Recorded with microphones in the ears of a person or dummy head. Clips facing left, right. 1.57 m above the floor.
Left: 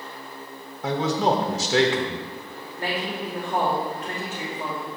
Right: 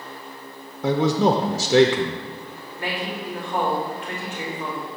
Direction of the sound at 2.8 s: 30° left (ahead or behind).